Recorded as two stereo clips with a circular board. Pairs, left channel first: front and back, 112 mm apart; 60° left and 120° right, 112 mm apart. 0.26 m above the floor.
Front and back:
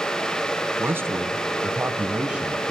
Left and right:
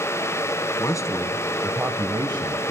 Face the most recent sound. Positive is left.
turn(degrees=-95)